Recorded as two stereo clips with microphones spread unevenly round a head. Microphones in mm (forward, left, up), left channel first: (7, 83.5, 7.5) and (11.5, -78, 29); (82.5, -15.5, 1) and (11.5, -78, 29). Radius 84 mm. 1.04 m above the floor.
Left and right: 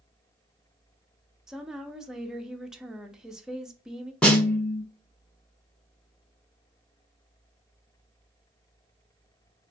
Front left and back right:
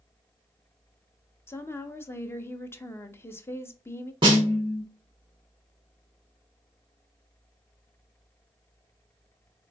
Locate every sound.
1.5 s a woman speaking: 5° left, 0.7 m
4.2 s a snare drum: 170° left, 1.0 m